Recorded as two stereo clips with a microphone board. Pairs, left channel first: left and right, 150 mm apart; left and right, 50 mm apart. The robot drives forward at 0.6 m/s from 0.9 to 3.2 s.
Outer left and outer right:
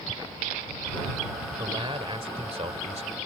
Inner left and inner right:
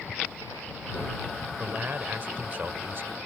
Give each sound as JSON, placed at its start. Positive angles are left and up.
{"t": 1.6, "sound": "a man speaking", "side_deg": -35}